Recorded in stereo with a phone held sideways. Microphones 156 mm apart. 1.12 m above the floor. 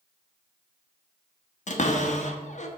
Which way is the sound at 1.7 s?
50° left (ahead or behind).